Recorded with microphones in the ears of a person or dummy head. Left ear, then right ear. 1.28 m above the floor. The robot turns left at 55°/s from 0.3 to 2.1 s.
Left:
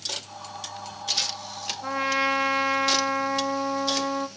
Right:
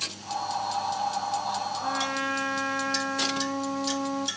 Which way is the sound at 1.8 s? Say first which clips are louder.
Left 7 dB; 75° left (ahead or behind).